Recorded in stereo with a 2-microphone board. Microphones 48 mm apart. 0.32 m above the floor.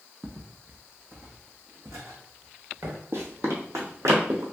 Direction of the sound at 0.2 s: 20° right (ahead or behind).